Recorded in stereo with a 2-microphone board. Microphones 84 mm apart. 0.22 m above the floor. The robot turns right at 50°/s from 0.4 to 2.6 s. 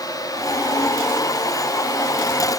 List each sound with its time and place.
Only background noise.